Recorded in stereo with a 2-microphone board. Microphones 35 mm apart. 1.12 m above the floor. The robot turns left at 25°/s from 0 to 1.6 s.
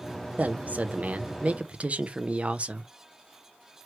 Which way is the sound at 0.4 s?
90° right.